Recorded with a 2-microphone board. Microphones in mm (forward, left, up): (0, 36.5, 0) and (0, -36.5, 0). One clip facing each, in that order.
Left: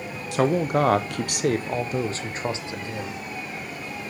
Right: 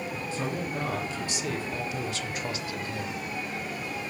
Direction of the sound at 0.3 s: 80° left.